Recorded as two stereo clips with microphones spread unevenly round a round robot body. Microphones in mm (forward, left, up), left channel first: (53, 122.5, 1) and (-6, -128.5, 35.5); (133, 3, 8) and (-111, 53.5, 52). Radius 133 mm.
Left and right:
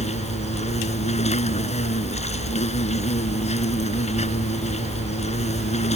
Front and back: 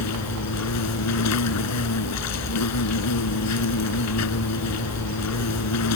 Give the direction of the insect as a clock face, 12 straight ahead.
12 o'clock.